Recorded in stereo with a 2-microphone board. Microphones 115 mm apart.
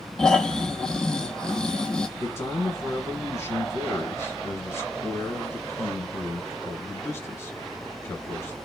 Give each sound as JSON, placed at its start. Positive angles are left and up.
{"t": 0.2, "sound": "snoring", "side_deg": 5, "distance_m": 0.8}
{"t": 2.2, "sound": "a man speaking", "side_deg": 20, "distance_m": 1.4}